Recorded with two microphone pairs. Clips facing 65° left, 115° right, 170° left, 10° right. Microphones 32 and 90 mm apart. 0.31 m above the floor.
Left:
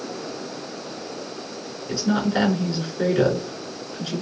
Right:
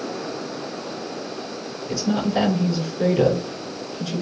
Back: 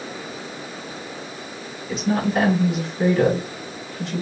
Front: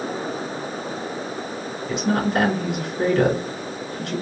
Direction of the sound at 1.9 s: 15° left.